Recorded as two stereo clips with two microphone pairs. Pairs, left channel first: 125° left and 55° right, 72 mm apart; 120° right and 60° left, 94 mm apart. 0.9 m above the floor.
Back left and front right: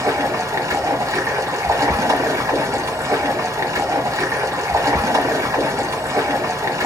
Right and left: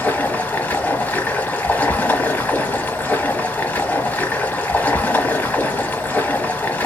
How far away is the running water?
About 1.0 m.